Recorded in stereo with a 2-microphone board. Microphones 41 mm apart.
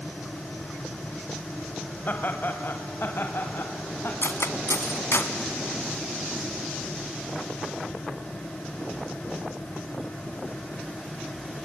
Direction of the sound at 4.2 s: 70° left (ahead or behind).